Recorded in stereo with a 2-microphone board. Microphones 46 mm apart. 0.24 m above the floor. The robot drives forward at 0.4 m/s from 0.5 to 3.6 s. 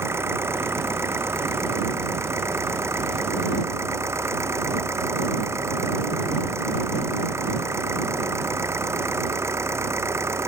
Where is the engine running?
70° right (ahead or behind); by 10.5 s 80° right.